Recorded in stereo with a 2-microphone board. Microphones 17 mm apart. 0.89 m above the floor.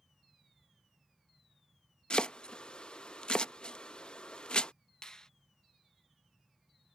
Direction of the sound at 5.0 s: 40° left (ahead or behind).